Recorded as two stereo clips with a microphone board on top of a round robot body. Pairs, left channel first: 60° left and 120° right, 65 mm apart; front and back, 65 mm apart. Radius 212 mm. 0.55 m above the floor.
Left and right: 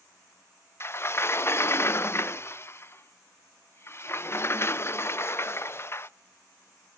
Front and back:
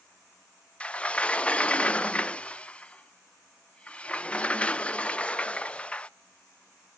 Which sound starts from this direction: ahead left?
A sliding door, at 0.8 s.